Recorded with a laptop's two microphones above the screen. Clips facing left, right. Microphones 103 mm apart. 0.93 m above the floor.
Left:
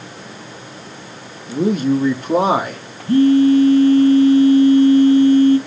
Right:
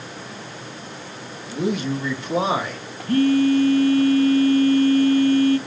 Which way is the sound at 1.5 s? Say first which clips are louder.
Left 7 dB; 35° left (ahead or behind).